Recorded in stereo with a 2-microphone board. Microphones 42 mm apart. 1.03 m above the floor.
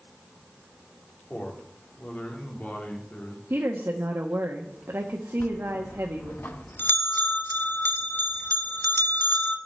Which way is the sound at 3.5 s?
65° right (ahead or behind).